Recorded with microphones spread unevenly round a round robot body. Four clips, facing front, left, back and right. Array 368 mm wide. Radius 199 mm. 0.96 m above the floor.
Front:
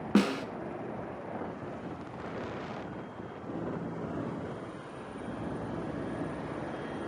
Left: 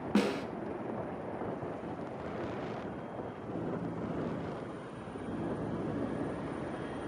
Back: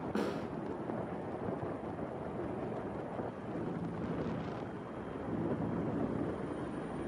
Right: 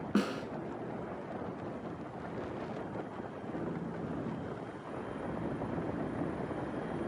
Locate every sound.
0.1 s a snare drum: straight ahead, 2.5 m